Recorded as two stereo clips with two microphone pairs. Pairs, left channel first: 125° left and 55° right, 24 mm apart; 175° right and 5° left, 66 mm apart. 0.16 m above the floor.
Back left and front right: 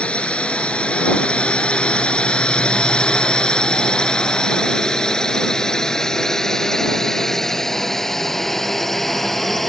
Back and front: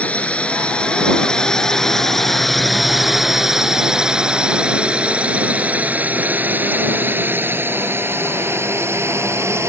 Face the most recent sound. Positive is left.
turn(degrees=50)